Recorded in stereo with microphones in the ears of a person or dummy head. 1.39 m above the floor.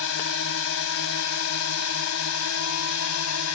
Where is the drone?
65° left (ahead or behind); by 3.6 s 75° left (ahead or behind).